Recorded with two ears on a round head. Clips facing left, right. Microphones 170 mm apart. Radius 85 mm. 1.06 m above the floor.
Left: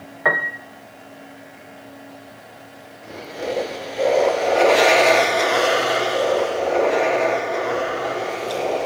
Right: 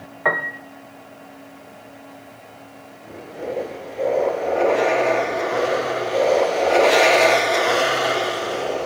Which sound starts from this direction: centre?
A piano, at 0.2 s.